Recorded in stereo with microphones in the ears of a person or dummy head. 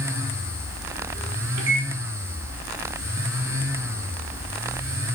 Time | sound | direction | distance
1.6 | a microwave | 85° right | 4 m